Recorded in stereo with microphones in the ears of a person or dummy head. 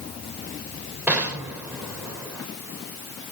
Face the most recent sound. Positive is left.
turn(degrees=-5)  # may be behind; listen again after turning